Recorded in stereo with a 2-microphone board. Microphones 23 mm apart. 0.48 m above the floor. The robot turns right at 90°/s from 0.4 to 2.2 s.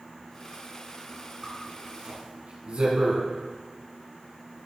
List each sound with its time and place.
1.4 s a zipper: 5° left (ahead or behind), 3 m; by 3.2 s 60° right (ahead or behind), 3 m